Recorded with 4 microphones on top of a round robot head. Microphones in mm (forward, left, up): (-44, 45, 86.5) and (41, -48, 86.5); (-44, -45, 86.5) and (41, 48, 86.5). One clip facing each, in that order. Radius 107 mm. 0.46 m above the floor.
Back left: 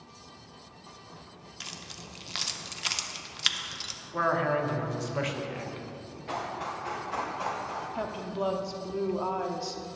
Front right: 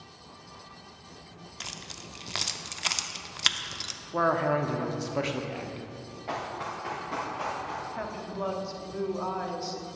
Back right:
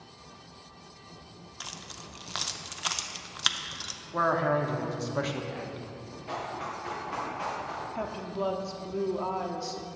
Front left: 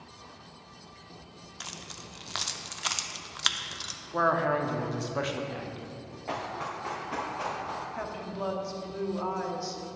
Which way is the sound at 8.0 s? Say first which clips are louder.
Back left 5 dB, back right 2 dB; 175° right.